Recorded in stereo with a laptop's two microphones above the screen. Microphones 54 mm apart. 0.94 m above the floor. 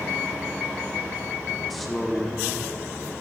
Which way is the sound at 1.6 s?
5° left (ahead or behind).